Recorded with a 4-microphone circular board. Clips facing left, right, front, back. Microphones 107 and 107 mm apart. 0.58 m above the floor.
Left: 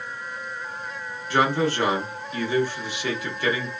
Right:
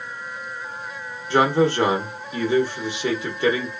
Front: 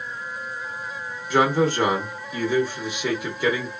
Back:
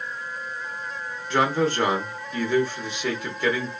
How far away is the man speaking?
About 0.7 m.